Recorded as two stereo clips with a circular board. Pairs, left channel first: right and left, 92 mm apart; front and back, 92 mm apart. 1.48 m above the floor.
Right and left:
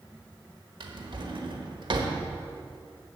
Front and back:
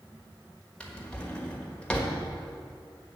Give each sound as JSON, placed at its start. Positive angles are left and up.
{"t": 0.8, "sound": "a drawer", "azimuth_deg": 75, "distance_m": 1.3}